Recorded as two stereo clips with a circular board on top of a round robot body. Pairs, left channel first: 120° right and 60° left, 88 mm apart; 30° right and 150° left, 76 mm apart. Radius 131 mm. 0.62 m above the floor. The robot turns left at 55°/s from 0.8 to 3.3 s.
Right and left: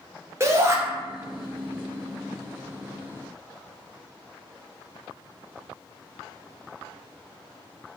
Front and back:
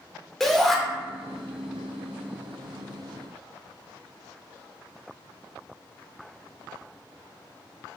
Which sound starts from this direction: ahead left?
A shout, at 0.4 s.